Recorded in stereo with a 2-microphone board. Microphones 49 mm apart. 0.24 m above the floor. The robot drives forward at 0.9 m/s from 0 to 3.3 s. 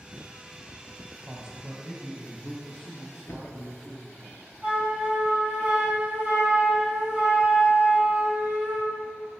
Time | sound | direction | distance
1.2 | a man speaking | 15° right (ahead or behind) | 1.1 m
3.3 | a thud | 65° left (ahead or behind) | 1.0 m
4.6 | a flute | 25° right (ahead or behind) | 2 m